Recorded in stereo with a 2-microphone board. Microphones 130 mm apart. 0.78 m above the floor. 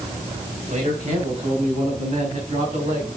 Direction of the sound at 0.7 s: 70° right (ahead or behind).